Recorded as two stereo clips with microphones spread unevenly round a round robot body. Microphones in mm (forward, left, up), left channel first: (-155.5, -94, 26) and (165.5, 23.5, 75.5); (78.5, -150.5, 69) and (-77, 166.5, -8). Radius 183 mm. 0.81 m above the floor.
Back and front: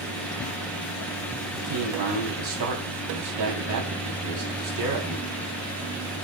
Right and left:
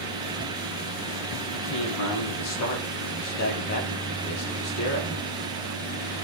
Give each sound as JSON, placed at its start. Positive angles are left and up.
{"t": 1.5, "sound": "a man speaking", "azimuth_deg": -15, "distance_m": 7.0}